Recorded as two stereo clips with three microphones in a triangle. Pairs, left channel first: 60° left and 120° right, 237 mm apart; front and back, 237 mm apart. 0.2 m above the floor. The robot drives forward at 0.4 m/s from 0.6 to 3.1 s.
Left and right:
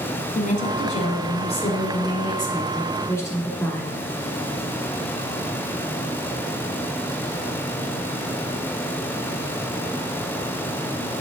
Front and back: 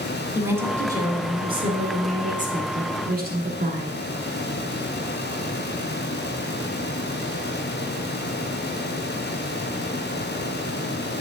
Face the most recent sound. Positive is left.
turn(degrees=135)